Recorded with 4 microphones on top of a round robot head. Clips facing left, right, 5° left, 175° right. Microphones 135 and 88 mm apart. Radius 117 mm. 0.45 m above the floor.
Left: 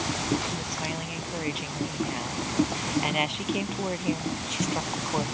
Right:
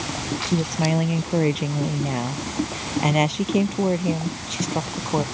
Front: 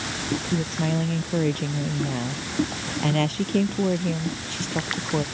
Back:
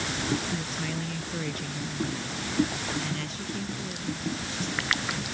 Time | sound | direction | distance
0.5 | a woman speaking | 55° right | ?